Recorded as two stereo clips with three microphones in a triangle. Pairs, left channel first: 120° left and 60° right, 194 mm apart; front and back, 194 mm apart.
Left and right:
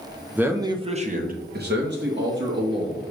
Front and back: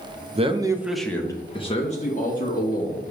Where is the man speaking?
140° right, 0.8 m; by 3.0 s 40° right, 1.7 m.